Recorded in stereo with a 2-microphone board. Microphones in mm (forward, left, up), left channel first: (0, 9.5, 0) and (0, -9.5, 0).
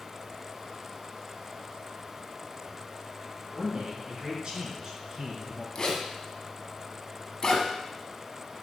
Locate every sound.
3.5 s a man speaking: 50° right (ahead or behind), 3.5 m; by 5.7 s 30° right (ahead or behind), 4 m
5.8 s a zipper: 30° left (ahead or behind), 1.6 m